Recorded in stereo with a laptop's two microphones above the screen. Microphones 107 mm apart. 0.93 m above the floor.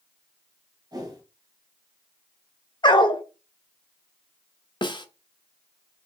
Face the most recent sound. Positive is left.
turn(degrees=40)  # may be behind; listen again after turning